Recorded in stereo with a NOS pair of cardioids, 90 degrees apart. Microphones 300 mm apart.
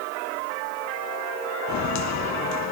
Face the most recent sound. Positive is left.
turn(degrees=60)